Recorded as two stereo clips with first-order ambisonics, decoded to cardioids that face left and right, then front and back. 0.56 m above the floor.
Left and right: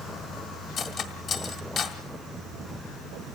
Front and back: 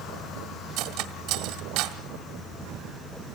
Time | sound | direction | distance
0.8 | cutlery clinking | 145° left | 1.5 m